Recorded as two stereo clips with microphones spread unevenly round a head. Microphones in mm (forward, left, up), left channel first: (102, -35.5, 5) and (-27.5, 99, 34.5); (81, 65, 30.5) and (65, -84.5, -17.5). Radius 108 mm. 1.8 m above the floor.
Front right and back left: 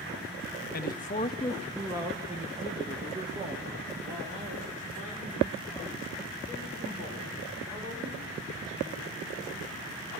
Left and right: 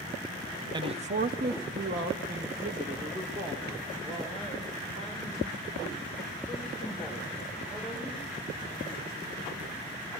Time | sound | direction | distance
0.7 | a man speaking | 25° right | 0.8 m